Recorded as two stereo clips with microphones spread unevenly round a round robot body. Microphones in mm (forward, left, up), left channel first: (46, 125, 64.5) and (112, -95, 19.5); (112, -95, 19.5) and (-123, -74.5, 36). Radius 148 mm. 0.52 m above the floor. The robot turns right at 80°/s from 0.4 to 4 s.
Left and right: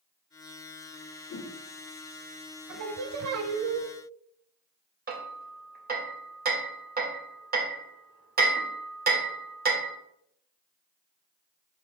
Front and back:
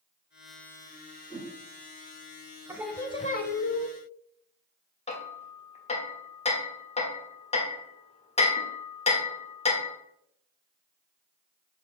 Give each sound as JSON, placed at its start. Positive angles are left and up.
{"t": 1.3, "sound": "a whoosh", "azimuth_deg": 65, "distance_m": 1.2}
{"t": 2.7, "sound": "singing", "azimuth_deg": -110, "distance_m": 0.7}
{"t": 5.1, "sound": "hammering", "azimuth_deg": -55, "distance_m": 1.3}